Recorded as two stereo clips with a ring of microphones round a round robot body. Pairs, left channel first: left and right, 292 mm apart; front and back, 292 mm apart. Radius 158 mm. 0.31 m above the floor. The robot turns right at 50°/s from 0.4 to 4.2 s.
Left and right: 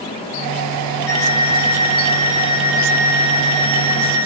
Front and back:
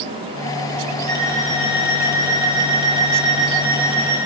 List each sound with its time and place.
1.1 s an alarm clock: 105° left, 7.5 m; by 4.2 s 100° right, 7.5 m